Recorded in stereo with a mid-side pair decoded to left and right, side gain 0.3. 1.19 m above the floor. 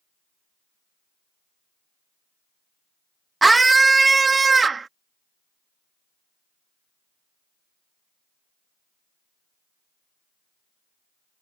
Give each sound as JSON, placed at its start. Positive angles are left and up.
{"t": 3.4, "sound": "a scream", "azimuth_deg": -30}